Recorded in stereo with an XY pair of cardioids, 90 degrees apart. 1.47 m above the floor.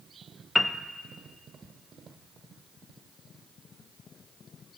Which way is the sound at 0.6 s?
15° left.